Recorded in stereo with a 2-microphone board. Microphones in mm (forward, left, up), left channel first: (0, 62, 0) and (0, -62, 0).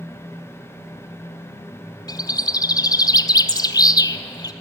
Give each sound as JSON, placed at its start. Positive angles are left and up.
{"t": 2.1, "sound": "a bird", "side_deg": 30, "distance_m": 0.8}